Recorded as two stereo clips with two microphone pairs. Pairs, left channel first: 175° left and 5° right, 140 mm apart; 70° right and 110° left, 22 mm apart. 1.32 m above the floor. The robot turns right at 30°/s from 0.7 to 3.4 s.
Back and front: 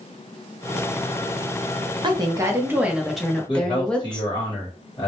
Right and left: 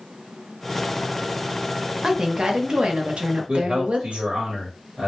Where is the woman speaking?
50° left, 0.7 m; by 4.3 s 90° left, 0.7 m.